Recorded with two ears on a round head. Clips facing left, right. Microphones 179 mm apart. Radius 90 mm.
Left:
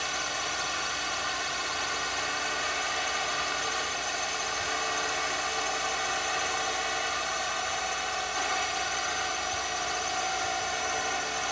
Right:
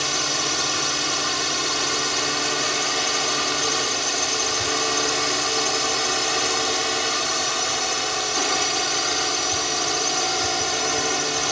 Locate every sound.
0.0 s a drone: 60° right (ahead or behind)